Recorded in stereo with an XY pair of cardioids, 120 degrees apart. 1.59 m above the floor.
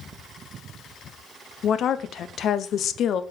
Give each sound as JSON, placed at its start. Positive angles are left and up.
{"t": 1.6, "sound": "a woman speaking", "azimuth_deg": 50, "distance_m": 0.7}